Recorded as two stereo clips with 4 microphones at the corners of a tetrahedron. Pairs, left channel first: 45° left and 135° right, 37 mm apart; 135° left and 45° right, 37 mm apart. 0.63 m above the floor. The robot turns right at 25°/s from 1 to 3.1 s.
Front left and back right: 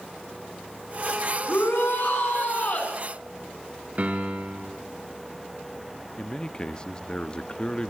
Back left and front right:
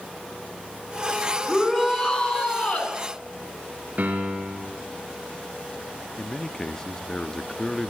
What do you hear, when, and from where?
1.5 s a shout: 50° left, 6 m; by 2.9 s 90° left, 6 m
4.0 s a piano: 85° right, 3.5 m
6.2 s a man speaking: 85° left, 0.6 m